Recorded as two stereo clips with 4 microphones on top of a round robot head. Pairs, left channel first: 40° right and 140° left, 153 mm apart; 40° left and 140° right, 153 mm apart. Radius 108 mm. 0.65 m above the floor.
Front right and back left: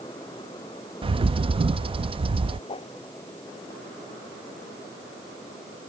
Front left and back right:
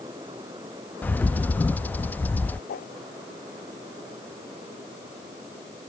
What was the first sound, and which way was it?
A bird, 115° left.